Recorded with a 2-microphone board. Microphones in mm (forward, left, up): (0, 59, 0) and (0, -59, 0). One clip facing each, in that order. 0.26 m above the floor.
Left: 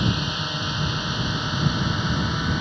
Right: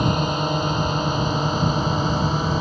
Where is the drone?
45° right (ahead or behind); by 2.6 s 40° right (ahead or behind).